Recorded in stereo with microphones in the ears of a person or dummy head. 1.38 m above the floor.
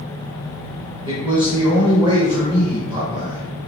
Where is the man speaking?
20° right (ahead or behind), 1.0 m.